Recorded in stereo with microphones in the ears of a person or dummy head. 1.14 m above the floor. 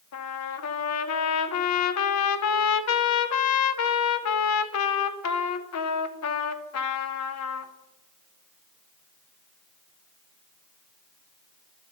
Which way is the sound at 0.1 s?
85° left.